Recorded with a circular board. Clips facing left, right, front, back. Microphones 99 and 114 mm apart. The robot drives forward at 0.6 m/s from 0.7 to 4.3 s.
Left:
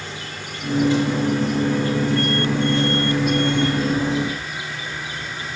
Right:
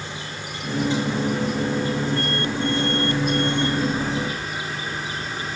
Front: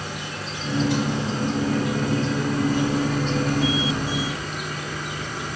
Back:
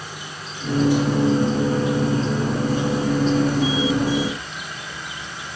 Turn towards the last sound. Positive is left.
turn(degrees=-35)